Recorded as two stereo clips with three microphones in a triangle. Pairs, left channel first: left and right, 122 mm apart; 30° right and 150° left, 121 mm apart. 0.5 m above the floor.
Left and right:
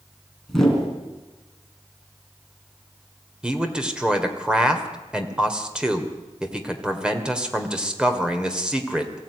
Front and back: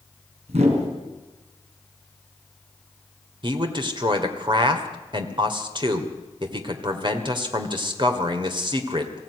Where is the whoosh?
175° left, 4 m.